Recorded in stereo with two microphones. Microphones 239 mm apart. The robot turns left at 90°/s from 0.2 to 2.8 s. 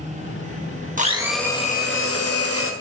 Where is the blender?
145° right, 1.5 m; by 2.7 s 60° left, 1.5 m.